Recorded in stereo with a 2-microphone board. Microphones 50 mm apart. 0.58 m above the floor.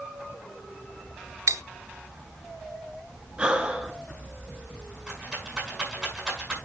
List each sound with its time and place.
1.5 s cutlery clinking: 70° right (ahead or behind), 0.6 m
3.4 s breathing: 20° right (ahead or behind), 2.0 m
5.1 s a rattle: 15° right (ahead or behind), 6 m